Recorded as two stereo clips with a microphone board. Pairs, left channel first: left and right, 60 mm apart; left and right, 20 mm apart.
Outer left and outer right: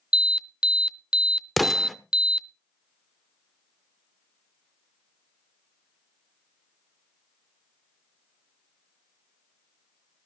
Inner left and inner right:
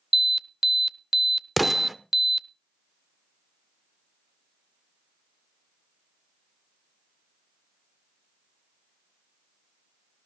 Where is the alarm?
15° right (ahead or behind), 0.6 m.